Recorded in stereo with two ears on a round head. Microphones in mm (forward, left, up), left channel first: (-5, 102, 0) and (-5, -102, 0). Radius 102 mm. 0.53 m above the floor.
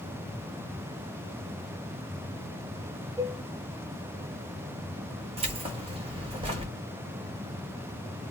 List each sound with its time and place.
3.2 s dishes clattering: 20° right (ahead or behind), 2.5 m
5.4 s keys jangling: 25° right (ahead or behind), 1.6 m